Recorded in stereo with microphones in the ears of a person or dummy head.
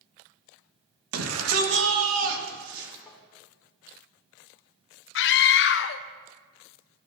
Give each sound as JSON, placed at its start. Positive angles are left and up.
{"t": 1.1, "sound": "a shout", "side_deg": -85, "distance_m": 1.5}
{"t": 3.1, "sound": "tapping", "side_deg": 10, "distance_m": 3.0}
{"t": 5.2, "sound": "a scream", "side_deg": 65, "distance_m": 0.8}